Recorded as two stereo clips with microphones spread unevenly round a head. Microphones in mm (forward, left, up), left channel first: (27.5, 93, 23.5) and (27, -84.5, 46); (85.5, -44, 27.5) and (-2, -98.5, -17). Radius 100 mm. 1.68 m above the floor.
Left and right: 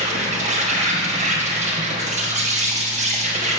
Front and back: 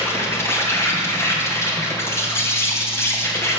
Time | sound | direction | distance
0.0 | an insect | 35° right | 2.5 m